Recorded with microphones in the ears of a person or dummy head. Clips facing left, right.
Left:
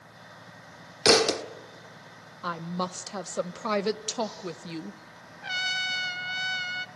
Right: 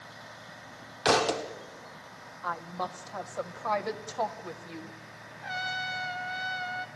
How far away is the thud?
About 1.1 m.